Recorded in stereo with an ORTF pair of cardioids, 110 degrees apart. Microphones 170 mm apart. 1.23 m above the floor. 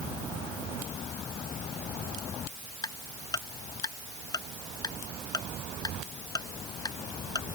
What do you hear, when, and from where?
2.8 s ticking: 20° left